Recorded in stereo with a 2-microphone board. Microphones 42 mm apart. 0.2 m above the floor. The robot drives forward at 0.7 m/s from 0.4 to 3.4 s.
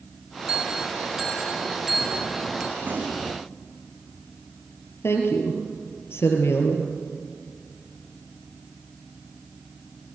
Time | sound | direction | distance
0.5 | a bell | 20° right (ahead or behind) | 1.6 m
2.8 | a gunshot | 35° right (ahead or behind) | 6.5 m
5.0 | a woman speaking | 75° left (ahead or behind) | 4 m